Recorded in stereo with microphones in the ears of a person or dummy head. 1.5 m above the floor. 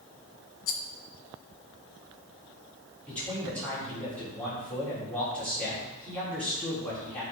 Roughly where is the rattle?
Left.